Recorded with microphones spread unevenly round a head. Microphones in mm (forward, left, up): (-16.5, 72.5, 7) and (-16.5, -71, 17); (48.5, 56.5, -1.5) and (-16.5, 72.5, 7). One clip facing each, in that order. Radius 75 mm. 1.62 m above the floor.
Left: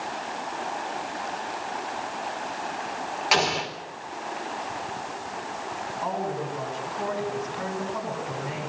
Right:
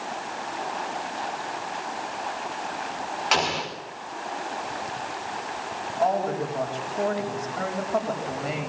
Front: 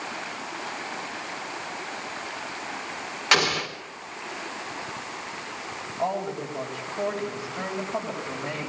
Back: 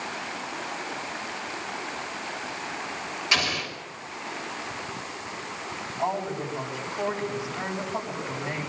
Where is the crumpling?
I don't hear crumpling.